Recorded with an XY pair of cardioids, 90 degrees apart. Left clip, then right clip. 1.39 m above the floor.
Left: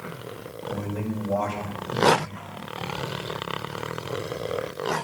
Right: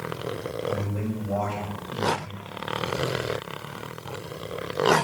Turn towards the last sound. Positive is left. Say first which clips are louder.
# right 1 dB
turn(degrees=55)